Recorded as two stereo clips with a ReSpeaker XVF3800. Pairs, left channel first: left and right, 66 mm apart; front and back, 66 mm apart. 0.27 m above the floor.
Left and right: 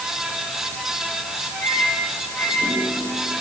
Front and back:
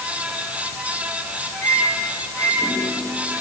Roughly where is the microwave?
Ahead left.